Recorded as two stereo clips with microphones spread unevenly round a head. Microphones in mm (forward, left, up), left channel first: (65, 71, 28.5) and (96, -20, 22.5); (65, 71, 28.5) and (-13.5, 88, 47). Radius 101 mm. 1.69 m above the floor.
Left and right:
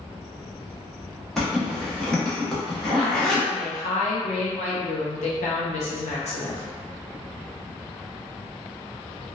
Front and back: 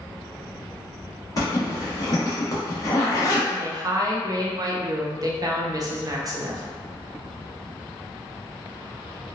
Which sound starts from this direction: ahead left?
A zipper, at 1.4 s.